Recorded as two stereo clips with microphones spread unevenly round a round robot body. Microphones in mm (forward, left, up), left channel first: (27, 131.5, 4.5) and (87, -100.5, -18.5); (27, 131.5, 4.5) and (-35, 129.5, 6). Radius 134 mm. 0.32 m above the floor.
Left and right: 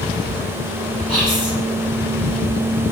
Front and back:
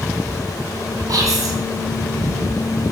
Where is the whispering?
165° left, 2.5 m.